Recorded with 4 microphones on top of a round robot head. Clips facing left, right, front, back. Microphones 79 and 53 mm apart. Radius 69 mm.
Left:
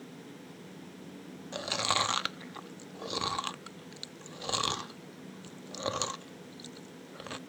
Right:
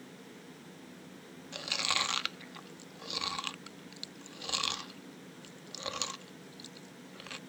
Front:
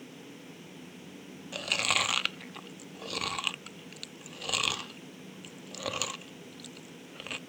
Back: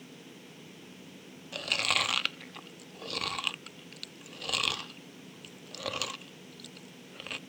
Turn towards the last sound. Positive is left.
turn(degrees=85)